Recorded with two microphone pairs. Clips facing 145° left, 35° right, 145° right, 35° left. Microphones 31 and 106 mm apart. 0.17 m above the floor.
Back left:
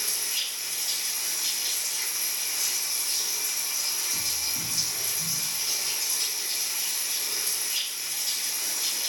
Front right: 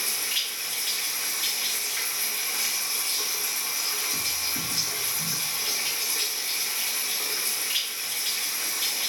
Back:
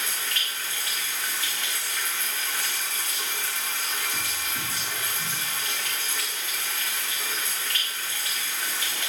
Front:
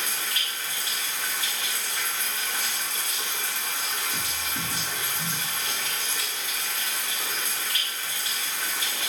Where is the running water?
40° right, 2 m.